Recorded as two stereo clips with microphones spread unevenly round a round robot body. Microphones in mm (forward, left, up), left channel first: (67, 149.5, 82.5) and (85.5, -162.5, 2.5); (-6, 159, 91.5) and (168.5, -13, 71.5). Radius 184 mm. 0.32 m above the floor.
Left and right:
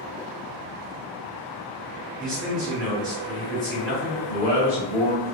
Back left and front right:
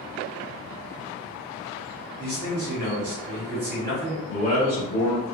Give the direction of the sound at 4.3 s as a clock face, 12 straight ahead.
6 o'clock.